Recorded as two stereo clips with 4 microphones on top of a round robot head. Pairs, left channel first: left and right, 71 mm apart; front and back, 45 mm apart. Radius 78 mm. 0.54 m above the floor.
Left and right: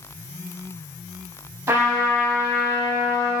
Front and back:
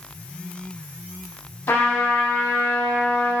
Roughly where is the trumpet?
Ahead right.